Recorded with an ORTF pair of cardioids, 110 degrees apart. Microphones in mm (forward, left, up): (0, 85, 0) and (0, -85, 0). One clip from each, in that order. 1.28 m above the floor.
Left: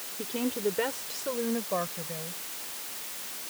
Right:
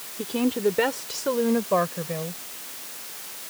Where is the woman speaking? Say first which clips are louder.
Right 6 dB; 25° right; by 2.4 s 55° right.